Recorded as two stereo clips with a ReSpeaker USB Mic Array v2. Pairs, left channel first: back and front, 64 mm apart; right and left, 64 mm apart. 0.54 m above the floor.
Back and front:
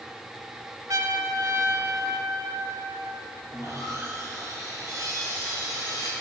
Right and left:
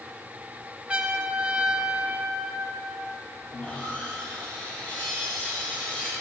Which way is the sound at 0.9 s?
15° left.